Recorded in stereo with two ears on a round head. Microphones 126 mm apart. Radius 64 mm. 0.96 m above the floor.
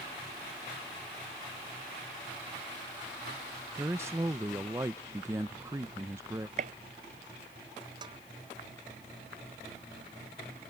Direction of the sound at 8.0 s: 35° right (ahead or behind).